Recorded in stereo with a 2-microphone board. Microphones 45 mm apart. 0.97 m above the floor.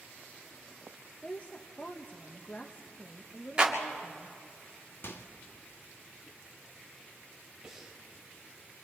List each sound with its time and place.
1.2 s a woman speaking: 40° left (ahead or behind), 1.1 m
3.6 s a clap: 20° right (ahead or behind), 2.5 m
5.0 s a microwave: 60° left (ahead or behind), 1.3 m
7.6 s breathing: 10° right (ahead or behind), 4 m